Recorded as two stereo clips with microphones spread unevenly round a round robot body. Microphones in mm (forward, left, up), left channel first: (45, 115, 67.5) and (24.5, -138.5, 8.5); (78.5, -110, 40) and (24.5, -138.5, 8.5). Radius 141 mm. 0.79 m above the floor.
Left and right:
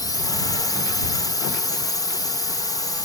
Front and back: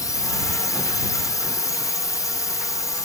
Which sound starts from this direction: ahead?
A drone, at 0.0 s.